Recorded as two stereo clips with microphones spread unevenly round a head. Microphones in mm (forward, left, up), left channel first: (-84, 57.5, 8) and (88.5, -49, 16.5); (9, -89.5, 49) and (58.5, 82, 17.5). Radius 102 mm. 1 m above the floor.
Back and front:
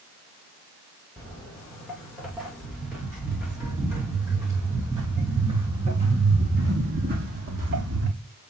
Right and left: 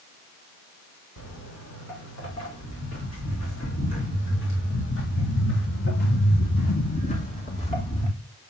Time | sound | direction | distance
1.2 | footsteps | 125° right | 4.5 m